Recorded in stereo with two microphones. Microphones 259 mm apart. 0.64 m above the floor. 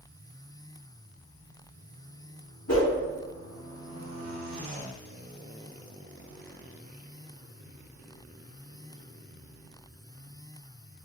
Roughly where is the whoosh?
Left.